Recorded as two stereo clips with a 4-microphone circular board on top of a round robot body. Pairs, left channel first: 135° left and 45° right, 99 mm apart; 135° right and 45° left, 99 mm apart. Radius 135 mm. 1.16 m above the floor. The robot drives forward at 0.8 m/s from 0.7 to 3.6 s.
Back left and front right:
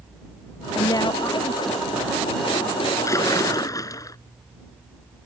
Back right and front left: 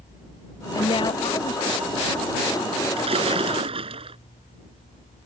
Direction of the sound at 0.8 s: 170° right.